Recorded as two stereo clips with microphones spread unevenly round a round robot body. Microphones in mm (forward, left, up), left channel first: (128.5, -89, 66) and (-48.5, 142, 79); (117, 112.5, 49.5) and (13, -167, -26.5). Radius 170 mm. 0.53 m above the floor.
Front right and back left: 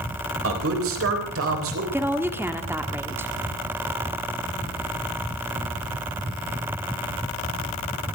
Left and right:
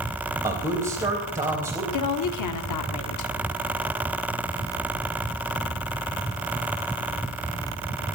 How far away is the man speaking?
About 3.5 m.